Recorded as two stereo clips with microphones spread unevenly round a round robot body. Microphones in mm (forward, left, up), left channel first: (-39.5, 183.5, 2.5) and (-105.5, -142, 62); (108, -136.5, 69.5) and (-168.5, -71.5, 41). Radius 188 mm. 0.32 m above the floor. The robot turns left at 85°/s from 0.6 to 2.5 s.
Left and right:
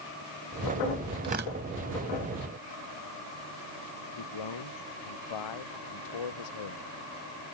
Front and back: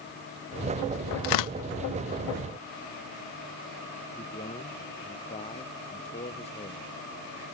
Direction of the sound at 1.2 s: 20° right.